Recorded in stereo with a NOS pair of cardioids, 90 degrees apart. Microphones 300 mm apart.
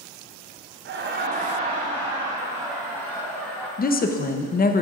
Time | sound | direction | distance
0.8 | laughter | 40° right | 0.7 m
3.8 | a woman speaking | 30° left | 0.8 m